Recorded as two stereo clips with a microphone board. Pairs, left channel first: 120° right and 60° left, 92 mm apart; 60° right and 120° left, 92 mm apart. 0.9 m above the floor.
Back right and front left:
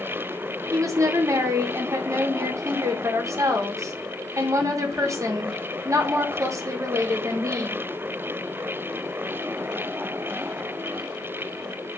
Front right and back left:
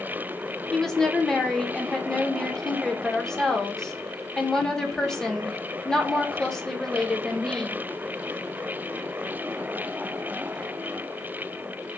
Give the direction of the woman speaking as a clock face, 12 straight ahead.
11 o'clock.